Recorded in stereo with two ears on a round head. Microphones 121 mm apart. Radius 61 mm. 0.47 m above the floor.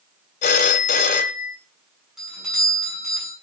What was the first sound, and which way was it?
A phone ringing, 60° left (ahead or behind).